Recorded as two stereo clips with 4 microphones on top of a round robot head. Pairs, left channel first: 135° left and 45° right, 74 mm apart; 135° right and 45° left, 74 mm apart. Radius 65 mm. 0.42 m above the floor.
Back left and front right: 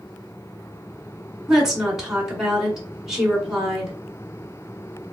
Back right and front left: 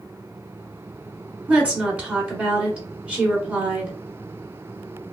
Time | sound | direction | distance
1.5 | a woman speaking | 20° left | 1.4 m